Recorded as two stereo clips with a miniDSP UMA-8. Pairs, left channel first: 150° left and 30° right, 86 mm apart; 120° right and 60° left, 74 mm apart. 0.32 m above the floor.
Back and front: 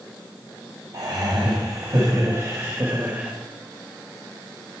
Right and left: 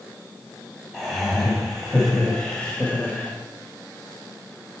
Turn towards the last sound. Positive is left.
turn(degrees=-90)